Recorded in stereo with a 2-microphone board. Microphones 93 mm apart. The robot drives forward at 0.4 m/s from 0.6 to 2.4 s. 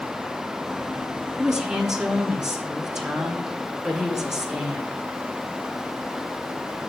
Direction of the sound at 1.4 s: 10° right (ahead or behind).